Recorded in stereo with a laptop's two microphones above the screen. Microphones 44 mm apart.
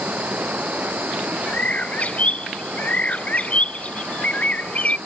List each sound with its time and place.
0.0 s running water: 40° right (ahead or behind)
1.5 s a bird: 35° left (ahead or behind)